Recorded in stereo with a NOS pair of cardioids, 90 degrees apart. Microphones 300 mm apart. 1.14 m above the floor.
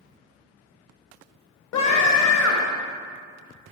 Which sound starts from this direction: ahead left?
A scream, at 1.7 s.